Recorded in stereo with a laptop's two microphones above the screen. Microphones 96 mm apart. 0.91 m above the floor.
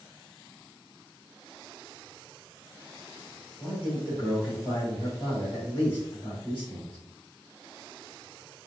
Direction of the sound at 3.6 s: 20° left (ahead or behind).